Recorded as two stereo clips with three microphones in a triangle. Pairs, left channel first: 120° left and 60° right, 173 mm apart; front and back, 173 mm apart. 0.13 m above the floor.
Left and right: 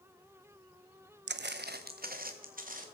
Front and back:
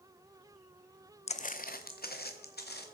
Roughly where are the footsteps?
Ahead right.